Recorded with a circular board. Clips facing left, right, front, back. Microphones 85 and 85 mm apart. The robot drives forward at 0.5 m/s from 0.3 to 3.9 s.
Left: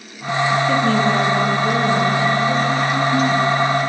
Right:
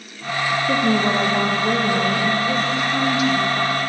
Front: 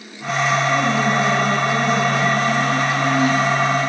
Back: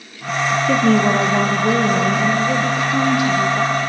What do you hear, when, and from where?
0.7 s a woman speaking: 170° right, 4 m; by 3.7 s 175° right, 5.5 m